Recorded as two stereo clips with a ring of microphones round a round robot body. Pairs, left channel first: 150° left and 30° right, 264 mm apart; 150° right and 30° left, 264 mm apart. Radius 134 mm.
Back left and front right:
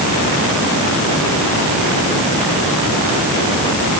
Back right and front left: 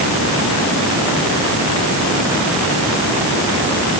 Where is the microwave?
No microwave in this recording.